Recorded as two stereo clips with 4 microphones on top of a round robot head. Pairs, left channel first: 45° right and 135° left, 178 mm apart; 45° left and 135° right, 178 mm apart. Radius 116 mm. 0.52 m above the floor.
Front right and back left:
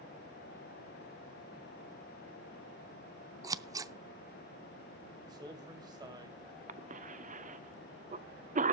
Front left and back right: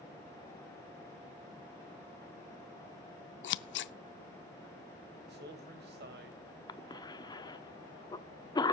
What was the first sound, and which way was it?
Scissors, 60° left.